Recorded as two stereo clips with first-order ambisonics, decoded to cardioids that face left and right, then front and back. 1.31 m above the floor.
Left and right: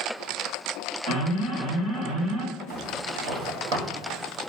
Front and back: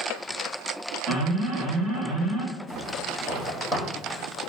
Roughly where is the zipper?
Right.